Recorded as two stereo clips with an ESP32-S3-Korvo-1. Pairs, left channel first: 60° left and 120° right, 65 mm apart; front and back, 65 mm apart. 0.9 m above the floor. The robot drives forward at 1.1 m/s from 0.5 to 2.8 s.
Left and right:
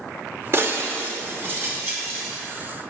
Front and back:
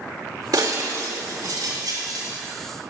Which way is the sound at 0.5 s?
170° right.